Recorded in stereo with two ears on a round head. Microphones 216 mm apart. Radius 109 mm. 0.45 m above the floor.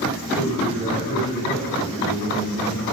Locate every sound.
0.2 s a man speaking: centre (ahead or behind), 1.7 m; by 2.8 s 40° right (ahead or behind), 2.5 m